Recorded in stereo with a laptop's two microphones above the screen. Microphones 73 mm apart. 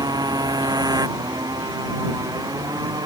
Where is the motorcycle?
60° right (ahead or behind).